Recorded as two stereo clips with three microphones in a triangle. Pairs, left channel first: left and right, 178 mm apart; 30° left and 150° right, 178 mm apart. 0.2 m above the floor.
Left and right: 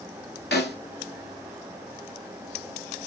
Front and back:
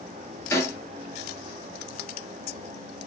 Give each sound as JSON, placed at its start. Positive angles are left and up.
{"t": 0.5, "sound": "a snare drum", "azimuth_deg": 105, "distance_m": 1.2}